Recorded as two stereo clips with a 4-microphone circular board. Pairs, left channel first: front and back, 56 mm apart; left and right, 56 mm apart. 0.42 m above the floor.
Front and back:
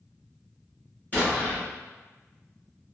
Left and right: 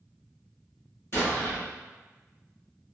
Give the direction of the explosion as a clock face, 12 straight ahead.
10 o'clock.